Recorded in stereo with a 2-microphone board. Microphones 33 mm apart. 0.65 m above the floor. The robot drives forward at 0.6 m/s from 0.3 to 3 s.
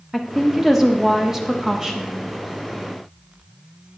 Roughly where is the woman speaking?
Centre.